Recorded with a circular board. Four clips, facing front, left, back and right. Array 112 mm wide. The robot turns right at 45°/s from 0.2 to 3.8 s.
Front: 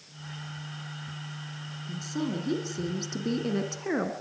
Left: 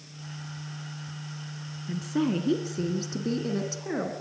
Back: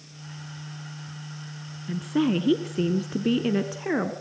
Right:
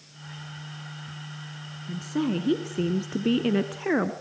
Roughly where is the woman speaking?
Behind.